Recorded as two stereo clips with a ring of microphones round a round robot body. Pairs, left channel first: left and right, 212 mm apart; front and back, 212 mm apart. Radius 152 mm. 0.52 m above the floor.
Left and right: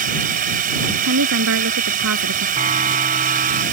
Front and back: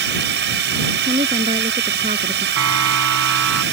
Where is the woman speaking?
110° right.